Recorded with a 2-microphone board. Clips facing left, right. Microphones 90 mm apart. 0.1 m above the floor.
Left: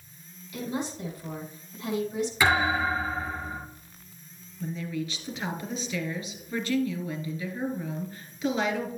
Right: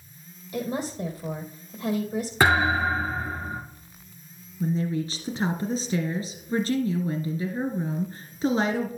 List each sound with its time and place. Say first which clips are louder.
0.5 s a woman speaking: right 3 dB; 35° right (ahead or behind), 3 m
2.4 s a thud: right 3 dB; 45° right (ahead or behind), 4 m
4.6 s a woman speaking: right 6 dB; 35° right (ahead or behind), 1.5 m